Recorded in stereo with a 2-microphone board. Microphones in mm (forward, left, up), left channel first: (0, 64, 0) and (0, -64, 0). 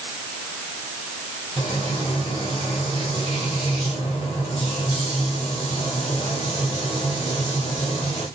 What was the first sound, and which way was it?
Frying, 55° left (ahead or behind).